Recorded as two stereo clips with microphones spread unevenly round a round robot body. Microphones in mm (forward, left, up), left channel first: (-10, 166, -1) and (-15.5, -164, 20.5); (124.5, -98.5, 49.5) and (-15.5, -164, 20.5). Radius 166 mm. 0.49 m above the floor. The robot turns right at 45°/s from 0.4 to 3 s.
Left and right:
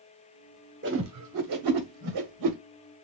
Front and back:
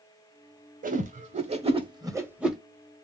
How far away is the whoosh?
About 1.1 m.